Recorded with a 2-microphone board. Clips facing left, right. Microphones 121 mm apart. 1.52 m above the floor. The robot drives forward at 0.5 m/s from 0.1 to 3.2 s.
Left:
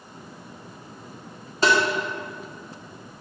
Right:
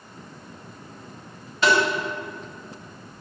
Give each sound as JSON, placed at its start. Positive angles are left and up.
{"t": 1.6, "sound": "tapping", "side_deg": 35, "distance_m": 1.7}